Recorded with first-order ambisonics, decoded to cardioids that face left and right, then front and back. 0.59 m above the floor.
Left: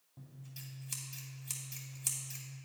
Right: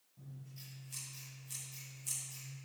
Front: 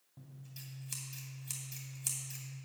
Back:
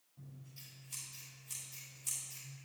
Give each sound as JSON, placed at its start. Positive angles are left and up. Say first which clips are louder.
{"t": 0.2, "sound": "scissors", "louder": "left 2 dB, front 2 dB", "azimuth_deg": 45, "distance_m": 2.5}